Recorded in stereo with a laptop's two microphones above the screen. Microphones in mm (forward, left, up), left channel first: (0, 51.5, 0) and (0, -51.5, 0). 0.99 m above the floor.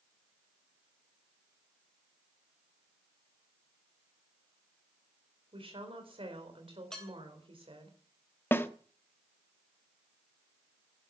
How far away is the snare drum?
About 0.8 m.